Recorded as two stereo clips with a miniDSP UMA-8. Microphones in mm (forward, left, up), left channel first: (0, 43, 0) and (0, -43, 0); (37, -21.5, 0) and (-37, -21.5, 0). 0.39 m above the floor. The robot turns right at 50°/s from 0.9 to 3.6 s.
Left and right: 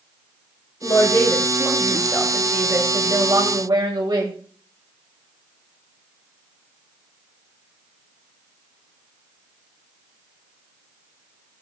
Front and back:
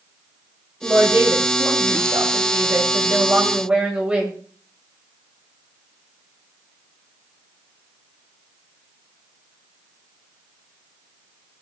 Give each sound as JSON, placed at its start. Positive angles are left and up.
{"t": 0.8, "sound": "a woman speaking", "azimuth_deg": 115, "distance_m": 2.0}